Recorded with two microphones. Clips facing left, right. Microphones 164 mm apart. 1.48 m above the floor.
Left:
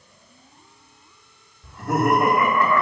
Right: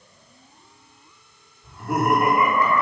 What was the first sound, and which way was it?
Laughter, 80° left.